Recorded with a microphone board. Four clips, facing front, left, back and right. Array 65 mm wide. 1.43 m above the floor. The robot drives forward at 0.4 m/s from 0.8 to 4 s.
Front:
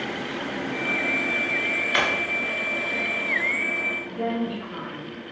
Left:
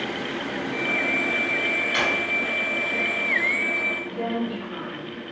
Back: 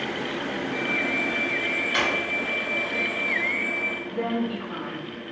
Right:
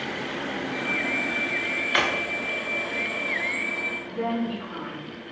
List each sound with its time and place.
1.9 s a drawer: 60° right, 0.6 m; by 2.1 s 70° right, 0.5 m
4.0 s a woman speaking: straight behind, 0.9 m